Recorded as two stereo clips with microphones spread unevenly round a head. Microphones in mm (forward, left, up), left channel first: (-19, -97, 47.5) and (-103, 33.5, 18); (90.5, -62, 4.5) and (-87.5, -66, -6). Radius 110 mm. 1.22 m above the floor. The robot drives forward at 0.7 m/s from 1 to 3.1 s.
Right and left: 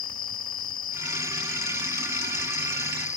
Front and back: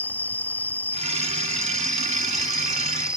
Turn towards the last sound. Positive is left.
turn(degrees=-95)